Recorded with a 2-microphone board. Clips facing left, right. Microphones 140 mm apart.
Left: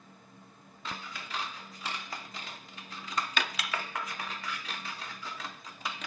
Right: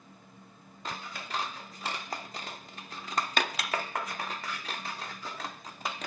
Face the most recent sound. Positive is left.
turn(degrees=-40)  # may be behind; listen again after turning